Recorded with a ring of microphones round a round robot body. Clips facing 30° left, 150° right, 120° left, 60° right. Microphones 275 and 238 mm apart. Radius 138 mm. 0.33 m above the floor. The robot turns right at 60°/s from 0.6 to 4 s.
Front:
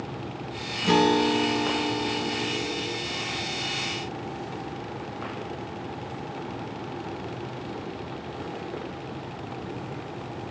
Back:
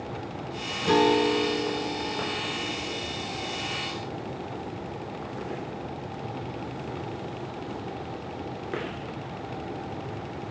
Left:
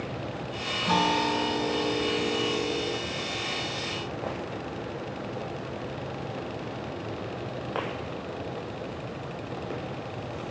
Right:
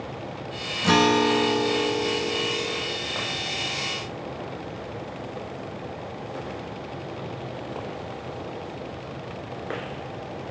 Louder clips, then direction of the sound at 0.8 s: Even, right 8 dB; 50° right.